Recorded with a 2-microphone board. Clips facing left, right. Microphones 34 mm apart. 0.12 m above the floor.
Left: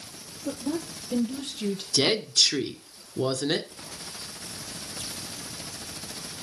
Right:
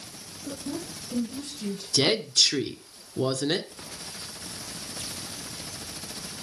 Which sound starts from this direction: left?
A woman speaking, at 0.5 s.